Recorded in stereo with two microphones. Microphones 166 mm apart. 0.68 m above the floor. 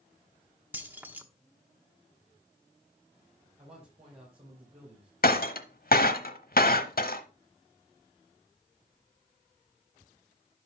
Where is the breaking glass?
65° left (ahead or behind), 0.9 m.